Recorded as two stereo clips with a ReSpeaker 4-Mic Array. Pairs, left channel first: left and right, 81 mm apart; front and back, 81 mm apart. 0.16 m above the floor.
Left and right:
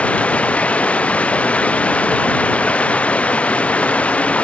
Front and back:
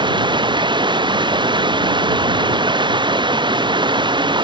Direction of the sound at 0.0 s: 165° left.